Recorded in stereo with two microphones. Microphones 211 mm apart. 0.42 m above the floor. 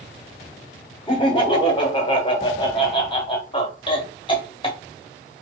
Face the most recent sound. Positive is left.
turn(degrees=25)  # may be behind; listen again after turning